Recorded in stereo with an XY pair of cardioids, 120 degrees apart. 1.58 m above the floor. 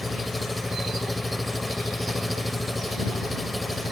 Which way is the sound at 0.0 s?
5° left.